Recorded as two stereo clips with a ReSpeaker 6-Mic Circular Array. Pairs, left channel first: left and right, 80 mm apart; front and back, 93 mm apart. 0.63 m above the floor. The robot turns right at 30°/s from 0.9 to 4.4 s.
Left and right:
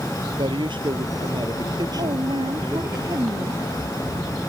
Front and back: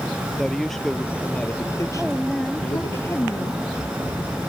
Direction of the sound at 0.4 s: 85° right.